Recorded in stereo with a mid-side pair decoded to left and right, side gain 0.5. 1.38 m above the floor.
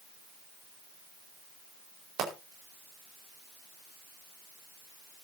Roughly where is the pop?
Ahead right.